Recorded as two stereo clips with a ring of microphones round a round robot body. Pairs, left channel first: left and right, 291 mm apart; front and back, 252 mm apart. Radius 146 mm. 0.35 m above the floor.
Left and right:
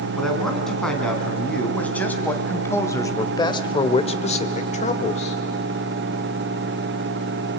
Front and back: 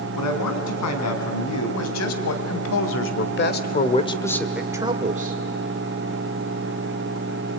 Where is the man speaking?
Straight ahead, 3.5 m; by 5.4 s 150° left, 1.3 m.